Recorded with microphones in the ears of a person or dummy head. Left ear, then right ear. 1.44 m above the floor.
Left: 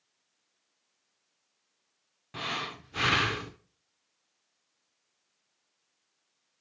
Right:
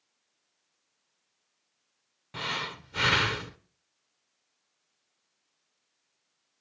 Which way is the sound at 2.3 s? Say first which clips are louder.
Right 1 dB; 5° right (ahead or behind).